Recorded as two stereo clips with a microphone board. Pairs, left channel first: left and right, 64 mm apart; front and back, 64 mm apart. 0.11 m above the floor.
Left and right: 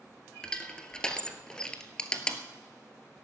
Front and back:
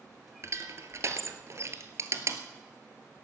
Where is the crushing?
165° left, 1.3 m.